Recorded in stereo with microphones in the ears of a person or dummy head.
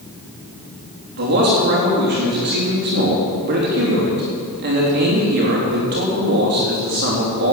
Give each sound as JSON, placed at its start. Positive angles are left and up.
{"t": 1.2, "sound": "a man speaking", "side_deg": -55, "distance_m": 3.5}